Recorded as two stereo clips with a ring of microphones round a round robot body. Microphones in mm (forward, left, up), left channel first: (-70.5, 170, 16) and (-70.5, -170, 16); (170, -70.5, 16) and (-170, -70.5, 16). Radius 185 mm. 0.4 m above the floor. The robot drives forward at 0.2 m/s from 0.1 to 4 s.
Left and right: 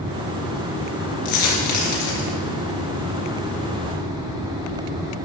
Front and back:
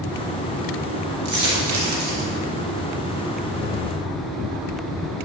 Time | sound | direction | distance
1.2 | a dropped coin | 125° left | 2.5 m